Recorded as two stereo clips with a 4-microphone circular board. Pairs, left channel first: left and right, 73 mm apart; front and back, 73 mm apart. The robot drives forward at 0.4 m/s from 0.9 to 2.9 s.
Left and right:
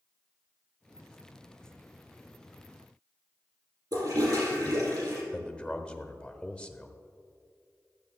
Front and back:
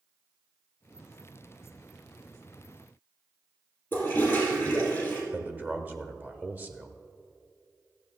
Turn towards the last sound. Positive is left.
turn(degrees=150)